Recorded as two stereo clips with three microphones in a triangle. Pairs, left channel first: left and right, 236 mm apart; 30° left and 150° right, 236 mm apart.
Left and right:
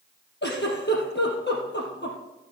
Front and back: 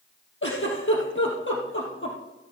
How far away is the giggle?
About 3 m.